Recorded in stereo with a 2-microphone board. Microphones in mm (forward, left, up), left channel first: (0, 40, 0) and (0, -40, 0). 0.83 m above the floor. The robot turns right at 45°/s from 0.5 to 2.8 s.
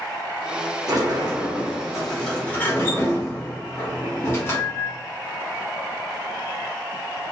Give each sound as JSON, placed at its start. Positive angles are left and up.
{"t": 0.9, "sound": "a sliding door", "azimuth_deg": -55, "distance_m": 0.8}